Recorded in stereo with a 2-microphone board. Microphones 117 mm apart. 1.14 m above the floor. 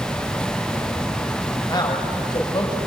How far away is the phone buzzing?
I don't hear a phone buzzing.